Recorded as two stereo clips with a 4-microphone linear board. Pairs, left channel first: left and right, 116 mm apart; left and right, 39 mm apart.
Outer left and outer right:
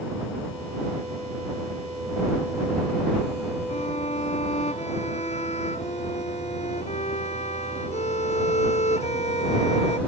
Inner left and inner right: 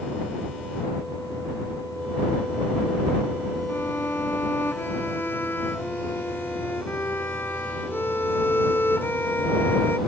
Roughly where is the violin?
Left.